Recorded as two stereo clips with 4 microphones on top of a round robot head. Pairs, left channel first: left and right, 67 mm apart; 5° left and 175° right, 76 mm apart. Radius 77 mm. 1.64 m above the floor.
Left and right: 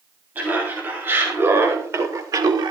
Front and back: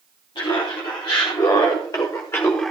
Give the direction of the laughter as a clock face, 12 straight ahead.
1 o'clock.